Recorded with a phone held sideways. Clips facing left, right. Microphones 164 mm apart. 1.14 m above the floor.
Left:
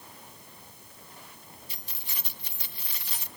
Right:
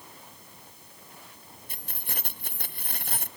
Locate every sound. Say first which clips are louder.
1.7 s keys jangling: right 6 dB; 55° right (ahead or behind), 0.8 m